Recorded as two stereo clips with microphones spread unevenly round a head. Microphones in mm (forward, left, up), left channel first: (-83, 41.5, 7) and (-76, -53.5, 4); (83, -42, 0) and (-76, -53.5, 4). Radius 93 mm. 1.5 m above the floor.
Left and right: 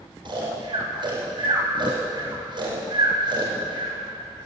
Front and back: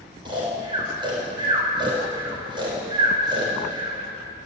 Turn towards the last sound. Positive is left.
turn(degrees=-115)